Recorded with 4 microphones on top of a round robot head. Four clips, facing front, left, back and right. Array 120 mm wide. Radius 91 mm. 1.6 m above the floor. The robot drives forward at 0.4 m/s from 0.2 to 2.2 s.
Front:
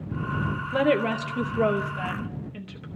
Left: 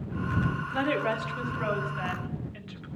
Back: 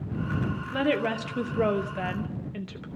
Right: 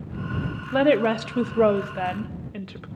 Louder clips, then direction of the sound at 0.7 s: Right 10 dB, front 4 dB; 70° right.